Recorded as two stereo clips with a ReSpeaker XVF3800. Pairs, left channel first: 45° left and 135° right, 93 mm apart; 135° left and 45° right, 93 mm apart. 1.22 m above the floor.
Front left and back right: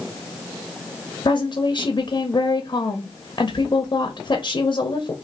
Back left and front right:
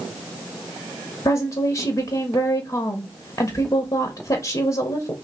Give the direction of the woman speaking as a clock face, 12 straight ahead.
9 o'clock.